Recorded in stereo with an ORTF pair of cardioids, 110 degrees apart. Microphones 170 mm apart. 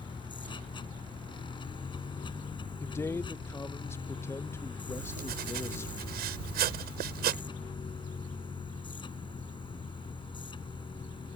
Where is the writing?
70° right.